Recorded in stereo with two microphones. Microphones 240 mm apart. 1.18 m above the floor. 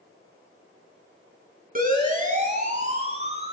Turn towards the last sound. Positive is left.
turn(degrees=-25)  # may be behind; listen again after turning